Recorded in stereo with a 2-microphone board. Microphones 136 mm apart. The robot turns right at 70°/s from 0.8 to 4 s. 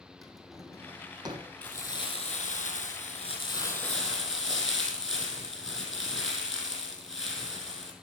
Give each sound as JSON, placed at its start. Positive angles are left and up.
{"t": 0.2, "sound": "a drawer", "side_deg": 0, "distance_m": 1.5}
{"t": 1.6, "sound": "crumpling", "azimuth_deg": 5, "distance_m": 2.5}